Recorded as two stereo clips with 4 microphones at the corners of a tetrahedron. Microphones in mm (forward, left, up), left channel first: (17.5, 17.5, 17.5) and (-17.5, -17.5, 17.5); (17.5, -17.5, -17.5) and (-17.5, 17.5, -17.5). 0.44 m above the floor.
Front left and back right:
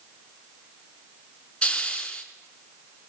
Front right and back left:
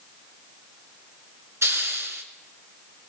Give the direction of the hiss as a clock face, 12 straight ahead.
8 o'clock.